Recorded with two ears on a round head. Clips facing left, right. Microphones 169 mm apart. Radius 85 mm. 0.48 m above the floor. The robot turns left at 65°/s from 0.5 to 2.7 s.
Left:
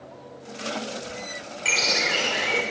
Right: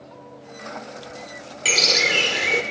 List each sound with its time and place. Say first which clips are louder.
1.6 s a bird: right 4 dB; 80° right, 1.7 m; by 2.6 s 140° right, 1.7 m